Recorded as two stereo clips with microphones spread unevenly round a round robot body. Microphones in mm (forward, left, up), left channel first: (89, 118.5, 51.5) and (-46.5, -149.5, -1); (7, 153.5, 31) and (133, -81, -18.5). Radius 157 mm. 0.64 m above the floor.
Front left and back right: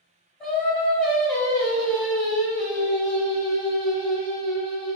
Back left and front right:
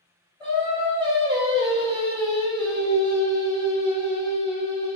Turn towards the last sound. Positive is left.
turn(degrees=-40)